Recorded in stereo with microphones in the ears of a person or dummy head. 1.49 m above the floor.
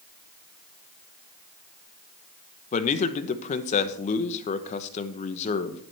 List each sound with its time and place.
2.7 s a man speaking: 35° left (ahead or behind), 0.9 m